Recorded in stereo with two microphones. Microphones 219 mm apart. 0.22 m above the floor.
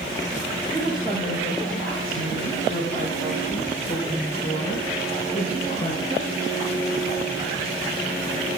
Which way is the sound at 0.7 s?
30° left (ahead or behind).